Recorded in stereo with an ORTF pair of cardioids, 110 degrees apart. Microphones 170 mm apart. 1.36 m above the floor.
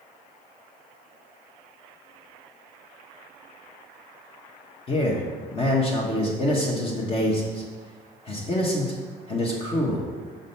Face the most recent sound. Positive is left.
turn(degrees=35)